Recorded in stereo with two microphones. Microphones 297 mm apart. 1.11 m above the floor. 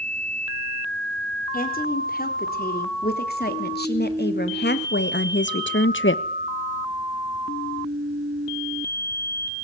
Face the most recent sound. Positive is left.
turn(degrees=45)  # may be behind; listen again after turning